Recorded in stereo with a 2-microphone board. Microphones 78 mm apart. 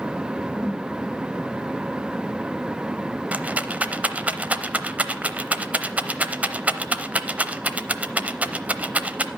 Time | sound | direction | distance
0.6 | a whoosh | 15° right (ahead or behind) | 6 m
3.3 | a rattle | 20° right (ahead or behind) | 0.6 m